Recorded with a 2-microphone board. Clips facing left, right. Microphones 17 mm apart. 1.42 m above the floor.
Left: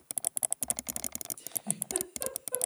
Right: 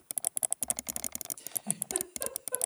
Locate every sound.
1.4 s a giggle: 10° right (ahead or behind), 3 m